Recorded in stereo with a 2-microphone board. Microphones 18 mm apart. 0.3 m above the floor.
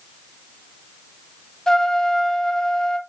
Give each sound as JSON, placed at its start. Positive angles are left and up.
{"t": 1.7, "sound": "a trumpet", "side_deg": 35, "distance_m": 0.8}